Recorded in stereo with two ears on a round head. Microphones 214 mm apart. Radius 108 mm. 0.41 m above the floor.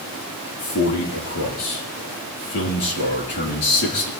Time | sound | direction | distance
0.6 | a man speaking | 80° left | 6 m